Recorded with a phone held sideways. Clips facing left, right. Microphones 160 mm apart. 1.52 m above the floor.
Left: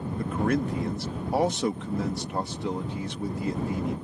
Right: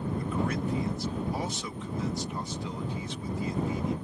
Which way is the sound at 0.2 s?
65° left (ahead or behind).